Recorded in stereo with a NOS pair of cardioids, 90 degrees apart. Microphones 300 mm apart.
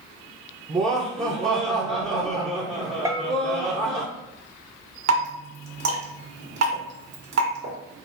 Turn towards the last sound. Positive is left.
turn(degrees=-60)